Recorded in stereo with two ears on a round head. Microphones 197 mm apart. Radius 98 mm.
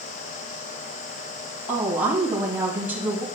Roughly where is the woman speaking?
Centre.